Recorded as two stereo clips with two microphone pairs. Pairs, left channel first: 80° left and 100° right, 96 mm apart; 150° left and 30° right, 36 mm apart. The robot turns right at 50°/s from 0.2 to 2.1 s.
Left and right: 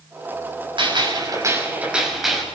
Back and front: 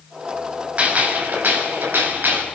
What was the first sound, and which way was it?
A gunshot, 75° right.